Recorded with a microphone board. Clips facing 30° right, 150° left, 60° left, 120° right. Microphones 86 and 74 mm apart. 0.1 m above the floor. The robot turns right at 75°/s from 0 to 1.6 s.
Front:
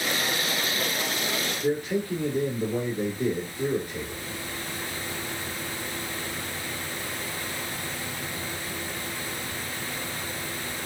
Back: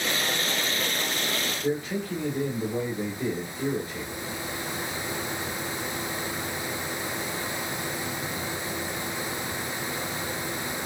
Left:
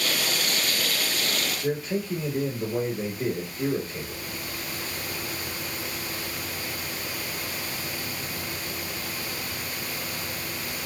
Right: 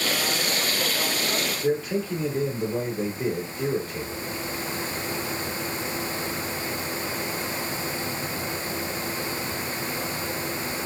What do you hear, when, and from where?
1.6 s a man speaking: 25° right, 1.2 m